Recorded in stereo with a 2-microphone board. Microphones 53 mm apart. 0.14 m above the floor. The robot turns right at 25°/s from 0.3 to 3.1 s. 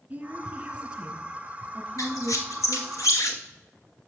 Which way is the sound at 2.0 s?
80° left.